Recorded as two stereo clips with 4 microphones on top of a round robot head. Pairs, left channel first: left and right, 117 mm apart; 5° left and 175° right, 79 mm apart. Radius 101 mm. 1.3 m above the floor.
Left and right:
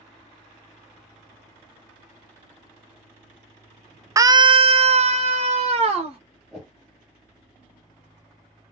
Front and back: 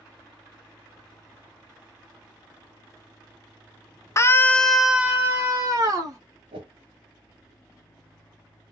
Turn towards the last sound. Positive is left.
turn(degrees=180)